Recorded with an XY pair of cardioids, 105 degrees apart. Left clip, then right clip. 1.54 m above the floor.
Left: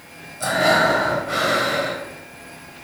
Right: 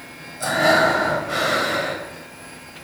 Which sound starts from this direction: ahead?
Breathing, at 0.4 s.